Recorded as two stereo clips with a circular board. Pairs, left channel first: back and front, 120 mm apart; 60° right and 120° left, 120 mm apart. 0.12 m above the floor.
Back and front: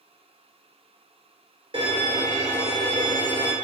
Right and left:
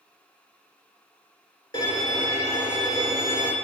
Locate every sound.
1.7 s a violin: 20° right, 1.1 m